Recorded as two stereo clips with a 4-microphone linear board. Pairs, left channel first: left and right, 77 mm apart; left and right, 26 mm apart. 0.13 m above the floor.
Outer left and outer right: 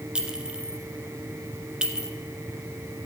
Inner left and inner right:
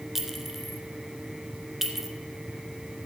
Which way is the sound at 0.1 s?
10° right (ahead or behind).